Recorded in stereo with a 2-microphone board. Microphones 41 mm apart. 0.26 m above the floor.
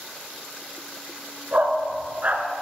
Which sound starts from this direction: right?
A dog barking, at 1.5 s.